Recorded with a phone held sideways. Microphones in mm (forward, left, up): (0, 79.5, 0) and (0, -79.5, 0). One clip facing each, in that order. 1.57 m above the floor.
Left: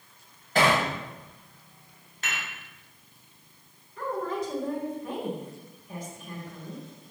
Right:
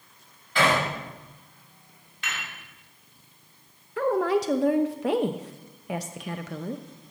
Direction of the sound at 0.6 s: 45° left (ahead or behind).